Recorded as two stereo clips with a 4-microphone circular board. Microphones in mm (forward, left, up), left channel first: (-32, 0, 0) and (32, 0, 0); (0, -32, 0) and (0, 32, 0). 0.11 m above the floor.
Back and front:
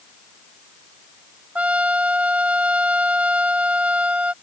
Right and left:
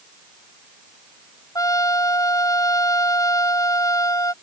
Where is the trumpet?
65° right.